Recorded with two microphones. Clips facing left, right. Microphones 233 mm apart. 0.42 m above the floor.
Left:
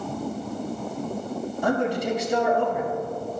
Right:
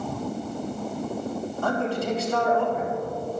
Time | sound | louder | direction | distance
1.6 | a man speaking | left 3 dB | 15° left (ahead or behind) | 3.5 m